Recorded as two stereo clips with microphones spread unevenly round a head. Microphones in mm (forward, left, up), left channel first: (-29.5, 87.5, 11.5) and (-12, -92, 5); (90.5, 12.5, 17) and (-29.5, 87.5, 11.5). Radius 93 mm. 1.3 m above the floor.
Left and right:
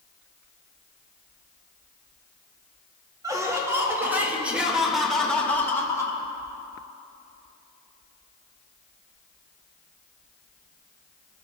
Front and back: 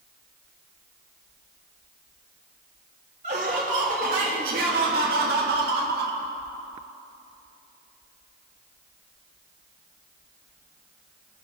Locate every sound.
3.2 s laughter: 155° right, 2.5 m; by 6.2 s 170° left, 1.8 m